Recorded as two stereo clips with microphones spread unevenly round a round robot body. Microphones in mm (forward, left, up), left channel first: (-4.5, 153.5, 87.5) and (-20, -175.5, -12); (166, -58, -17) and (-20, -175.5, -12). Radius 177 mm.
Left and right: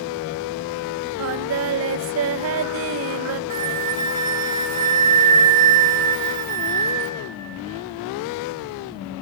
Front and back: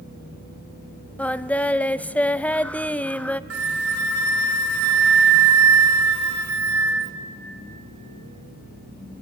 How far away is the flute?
About 1.3 m.